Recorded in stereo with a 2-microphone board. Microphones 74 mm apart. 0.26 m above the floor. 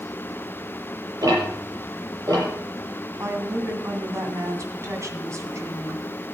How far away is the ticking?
About 7.5 m.